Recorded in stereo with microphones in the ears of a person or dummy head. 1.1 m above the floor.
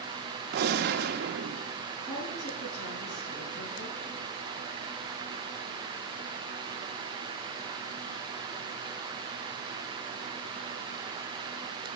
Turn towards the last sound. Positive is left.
turn(degrees=75)  # may be behind; listen again after turning